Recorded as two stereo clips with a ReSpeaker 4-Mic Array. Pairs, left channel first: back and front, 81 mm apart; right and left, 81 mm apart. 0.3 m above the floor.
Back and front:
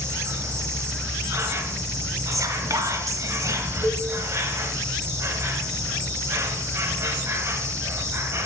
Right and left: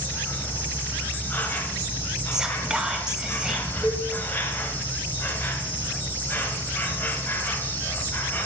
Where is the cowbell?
125° right, 2.5 m.